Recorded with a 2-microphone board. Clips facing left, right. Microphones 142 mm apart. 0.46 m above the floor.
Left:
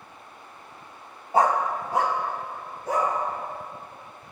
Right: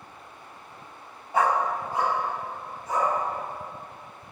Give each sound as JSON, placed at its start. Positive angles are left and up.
{"t": 1.3, "sound": "a dog barking", "side_deg": 30, "distance_m": 0.5}